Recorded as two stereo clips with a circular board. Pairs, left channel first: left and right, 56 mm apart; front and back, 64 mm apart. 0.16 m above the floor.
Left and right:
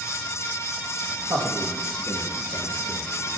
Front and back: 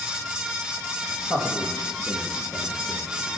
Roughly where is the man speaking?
Right.